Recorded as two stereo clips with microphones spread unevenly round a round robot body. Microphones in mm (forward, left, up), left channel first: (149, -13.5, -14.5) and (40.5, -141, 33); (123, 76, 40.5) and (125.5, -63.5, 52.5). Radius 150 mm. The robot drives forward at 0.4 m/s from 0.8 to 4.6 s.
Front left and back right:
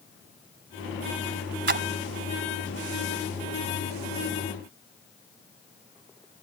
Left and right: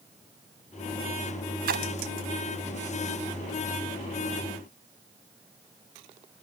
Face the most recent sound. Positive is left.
turn(degrees=-125)